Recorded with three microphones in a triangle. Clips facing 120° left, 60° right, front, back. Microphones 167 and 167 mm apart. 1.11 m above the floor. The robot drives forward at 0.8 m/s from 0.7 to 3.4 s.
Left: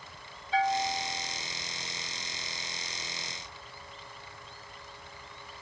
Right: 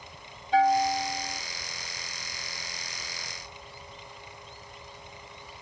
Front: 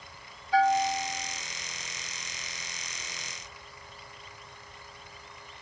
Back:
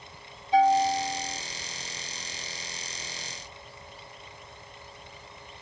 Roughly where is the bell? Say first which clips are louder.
Right 6 dB, back 3 dB; right.